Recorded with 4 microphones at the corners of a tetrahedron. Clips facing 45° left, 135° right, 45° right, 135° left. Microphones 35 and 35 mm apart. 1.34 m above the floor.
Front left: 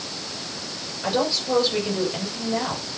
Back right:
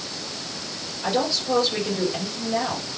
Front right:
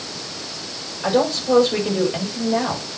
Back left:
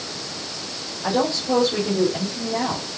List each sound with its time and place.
1.0 s a woman speaking: 35° right, 6 m